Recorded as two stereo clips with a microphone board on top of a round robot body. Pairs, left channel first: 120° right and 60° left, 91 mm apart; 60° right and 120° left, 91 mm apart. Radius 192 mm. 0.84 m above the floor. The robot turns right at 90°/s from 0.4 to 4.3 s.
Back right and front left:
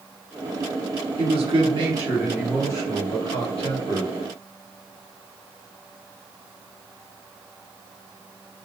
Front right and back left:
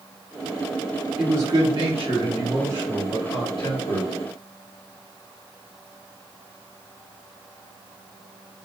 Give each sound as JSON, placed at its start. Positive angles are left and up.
{"t": 1.2, "sound": "a man speaking", "azimuth_deg": 40, "distance_m": 1.6}